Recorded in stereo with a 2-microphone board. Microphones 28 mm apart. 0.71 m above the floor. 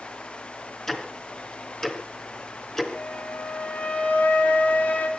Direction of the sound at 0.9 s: 15° left (ahead or behind).